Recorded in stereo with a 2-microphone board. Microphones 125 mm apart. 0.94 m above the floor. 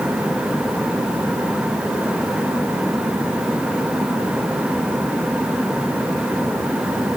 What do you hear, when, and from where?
Only background noise.